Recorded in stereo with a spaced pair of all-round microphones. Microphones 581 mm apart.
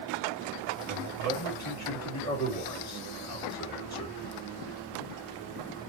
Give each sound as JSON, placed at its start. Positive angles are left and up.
{"t": 0.9, "sound": "a man speaking", "side_deg": 25, "distance_m": 1.9}